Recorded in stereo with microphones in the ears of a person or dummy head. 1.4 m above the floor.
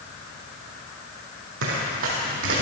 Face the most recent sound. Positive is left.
turn(degrees=-50)  # may be behind; listen again after turning